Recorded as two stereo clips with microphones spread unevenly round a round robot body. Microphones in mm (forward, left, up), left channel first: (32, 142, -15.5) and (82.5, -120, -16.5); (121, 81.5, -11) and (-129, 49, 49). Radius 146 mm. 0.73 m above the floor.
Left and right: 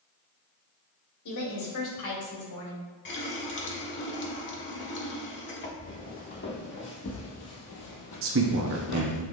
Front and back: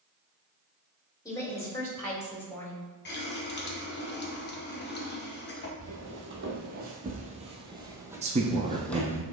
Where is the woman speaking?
80° left, 2.5 m; by 2.8 s 90° left, 3.5 m.